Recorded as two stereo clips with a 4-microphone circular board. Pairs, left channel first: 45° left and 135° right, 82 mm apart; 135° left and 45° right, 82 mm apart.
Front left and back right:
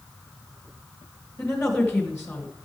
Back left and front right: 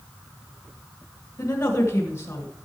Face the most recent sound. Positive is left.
turn(degrees=95)